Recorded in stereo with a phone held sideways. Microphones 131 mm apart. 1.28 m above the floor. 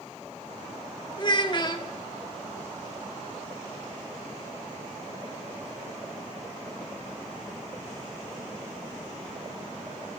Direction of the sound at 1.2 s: 35° left (ahead or behind).